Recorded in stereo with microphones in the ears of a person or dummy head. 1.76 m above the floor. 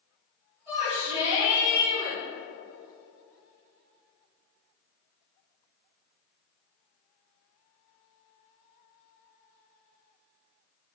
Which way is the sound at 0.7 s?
20° right (ahead or behind).